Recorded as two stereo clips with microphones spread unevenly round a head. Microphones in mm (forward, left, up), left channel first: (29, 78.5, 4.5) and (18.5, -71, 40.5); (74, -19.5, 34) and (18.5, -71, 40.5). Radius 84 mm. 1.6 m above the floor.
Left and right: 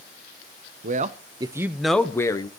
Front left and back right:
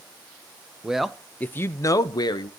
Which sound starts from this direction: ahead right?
A man speaking, at 0.8 s.